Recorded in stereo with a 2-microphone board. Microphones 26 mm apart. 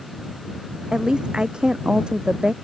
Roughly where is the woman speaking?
Right.